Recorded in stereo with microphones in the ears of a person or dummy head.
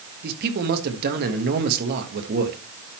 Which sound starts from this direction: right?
A man speaking, at 0.2 s.